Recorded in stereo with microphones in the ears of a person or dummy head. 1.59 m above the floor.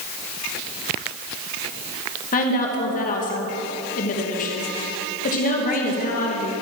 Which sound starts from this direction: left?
A woman speaking, at 2.3 s.